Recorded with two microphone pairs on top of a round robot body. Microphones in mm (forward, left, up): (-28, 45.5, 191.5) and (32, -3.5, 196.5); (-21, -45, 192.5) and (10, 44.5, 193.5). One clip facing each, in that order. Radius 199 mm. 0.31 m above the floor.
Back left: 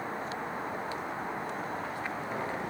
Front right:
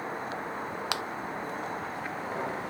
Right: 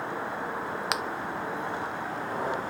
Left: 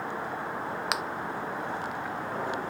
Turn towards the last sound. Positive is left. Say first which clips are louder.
# front right 4 dB, right 1 dB
turn(degrees=-20)